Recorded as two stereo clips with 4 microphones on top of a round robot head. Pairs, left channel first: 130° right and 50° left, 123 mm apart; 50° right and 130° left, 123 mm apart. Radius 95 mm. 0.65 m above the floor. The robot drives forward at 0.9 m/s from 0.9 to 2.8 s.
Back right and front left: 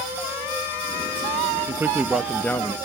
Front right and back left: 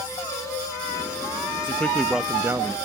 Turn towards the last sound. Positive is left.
turn(degrees=175)